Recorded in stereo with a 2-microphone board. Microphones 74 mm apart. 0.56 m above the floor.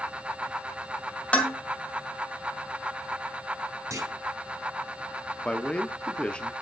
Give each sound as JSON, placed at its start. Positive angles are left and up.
{"t": 1.3, "sound": "dishes clattering", "side_deg": 20, "distance_m": 1.9}
{"t": 3.9, "sound": "a clunk", "side_deg": -45, "distance_m": 2.5}
{"t": 5.5, "sound": "a man speaking", "side_deg": 15, "distance_m": 0.6}